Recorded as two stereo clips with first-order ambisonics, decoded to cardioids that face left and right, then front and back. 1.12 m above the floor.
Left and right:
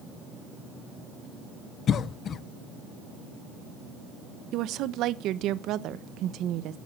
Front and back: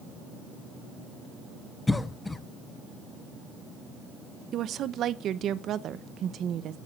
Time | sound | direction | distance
1.9 | a cough | 75° left | 0.7 m
4.5 | a woman speaking | 130° right | 0.8 m